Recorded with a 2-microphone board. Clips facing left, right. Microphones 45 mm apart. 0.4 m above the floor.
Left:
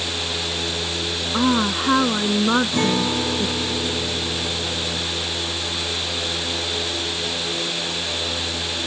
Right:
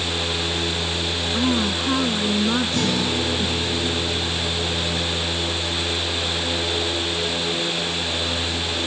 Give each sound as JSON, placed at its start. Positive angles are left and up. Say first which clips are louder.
{"t": 1.3, "sound": "a woman speaking", "louder": "left 3 dB", "side_deg": 35}
{"t": 2.7, "sound": "a guitar", "louder": "left 2 dB", "side_deg": 30}